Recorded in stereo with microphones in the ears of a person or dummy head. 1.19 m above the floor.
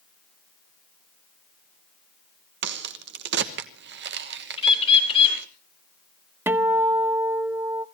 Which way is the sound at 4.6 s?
30° left (ahead or behind).